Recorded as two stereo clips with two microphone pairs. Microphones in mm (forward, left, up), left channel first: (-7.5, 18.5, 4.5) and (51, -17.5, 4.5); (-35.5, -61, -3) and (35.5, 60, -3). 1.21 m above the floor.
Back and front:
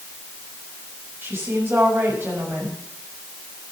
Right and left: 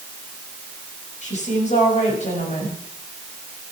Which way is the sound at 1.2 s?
85° right.